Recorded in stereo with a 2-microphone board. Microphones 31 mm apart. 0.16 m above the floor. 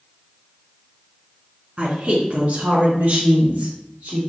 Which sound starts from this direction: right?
A woman speaking, at 1.8 s.